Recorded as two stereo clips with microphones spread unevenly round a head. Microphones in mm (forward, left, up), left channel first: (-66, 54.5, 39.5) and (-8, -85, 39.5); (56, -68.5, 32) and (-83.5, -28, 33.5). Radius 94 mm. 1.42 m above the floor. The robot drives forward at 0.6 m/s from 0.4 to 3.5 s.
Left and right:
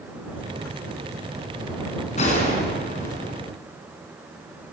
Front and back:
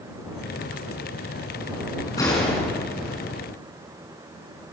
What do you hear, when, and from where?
2.2 s a gunshot: 55° left, 6 m; by 3.3 s 65° left, 5.5 m